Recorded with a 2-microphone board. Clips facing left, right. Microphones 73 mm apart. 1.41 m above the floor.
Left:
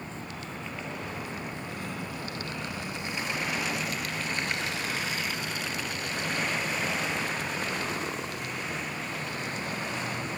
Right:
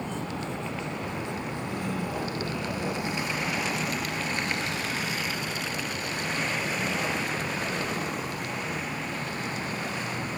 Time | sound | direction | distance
0.0 | a vehicle | 75° right (ahead or behind) | ?